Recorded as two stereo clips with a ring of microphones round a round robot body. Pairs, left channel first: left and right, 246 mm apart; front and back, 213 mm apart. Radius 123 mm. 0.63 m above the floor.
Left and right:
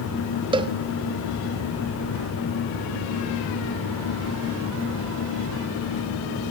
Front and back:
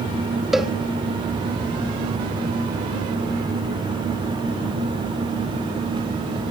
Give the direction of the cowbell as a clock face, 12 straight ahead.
3 o'clock.